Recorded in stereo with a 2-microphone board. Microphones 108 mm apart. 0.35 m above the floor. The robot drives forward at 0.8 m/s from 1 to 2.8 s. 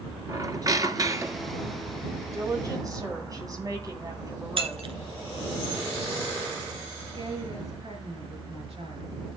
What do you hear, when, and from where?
0.3 s a squeak: 35° right (ahead or behind), 0.7 m; by 1.6 s 20° right (ahead or behind), 1.2 m
2.3 s a woman speaking: 30° right (ahead or behind), 3 m; by 4.9 s 35° right (ahead or behind), 3 m
4.6 s breaking glass: 55° right (ahead or behind), 1.4 m
7.1 s a woman speaking: 70° right (ahead or behind), 7 m